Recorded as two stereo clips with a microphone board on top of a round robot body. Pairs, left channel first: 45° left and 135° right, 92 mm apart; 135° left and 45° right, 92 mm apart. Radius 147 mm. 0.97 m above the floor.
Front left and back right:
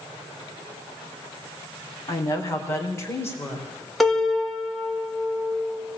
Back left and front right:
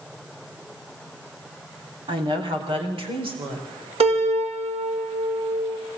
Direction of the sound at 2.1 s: 10° right.